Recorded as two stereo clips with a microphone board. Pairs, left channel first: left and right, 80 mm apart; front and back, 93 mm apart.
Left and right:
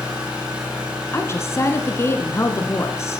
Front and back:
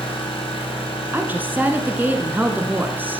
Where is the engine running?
10° right, 4 m.